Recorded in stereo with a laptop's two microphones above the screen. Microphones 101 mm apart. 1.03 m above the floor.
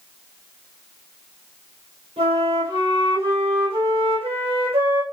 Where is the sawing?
I don't hear sawing.